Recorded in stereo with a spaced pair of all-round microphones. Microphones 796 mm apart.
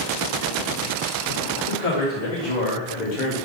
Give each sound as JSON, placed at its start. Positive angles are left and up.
{"t": 1.7, "sound": "a man speaking", "side_deg": 60, "distance_m": 2.0}